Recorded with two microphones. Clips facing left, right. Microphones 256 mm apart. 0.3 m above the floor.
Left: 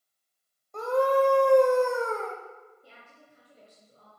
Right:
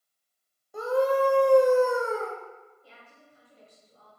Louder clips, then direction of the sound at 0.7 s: Even; 10° right (ahead or behind).